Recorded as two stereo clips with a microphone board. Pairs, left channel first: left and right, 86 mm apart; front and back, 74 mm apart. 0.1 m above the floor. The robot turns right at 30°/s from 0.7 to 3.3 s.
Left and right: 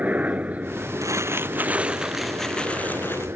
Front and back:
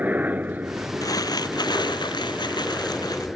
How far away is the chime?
No chime in this recording.